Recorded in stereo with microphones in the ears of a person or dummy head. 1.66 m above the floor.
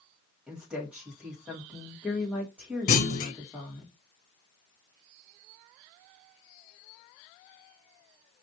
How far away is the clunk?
About 0.7 m.